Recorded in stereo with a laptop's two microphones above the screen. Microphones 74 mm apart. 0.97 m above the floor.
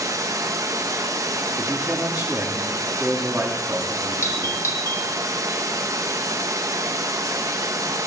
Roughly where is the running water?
Right.